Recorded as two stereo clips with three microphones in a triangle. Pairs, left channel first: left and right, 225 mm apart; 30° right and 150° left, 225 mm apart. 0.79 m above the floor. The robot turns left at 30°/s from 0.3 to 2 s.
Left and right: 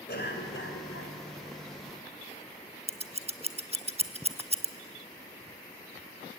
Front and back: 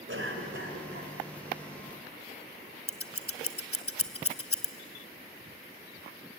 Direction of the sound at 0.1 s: 130° left.